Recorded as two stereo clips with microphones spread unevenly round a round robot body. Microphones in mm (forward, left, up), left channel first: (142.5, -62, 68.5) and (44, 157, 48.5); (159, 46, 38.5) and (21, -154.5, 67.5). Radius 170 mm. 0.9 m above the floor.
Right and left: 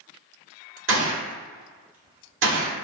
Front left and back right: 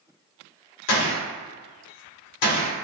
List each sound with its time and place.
0.9 s a gunshot: 75° left, 1.0 m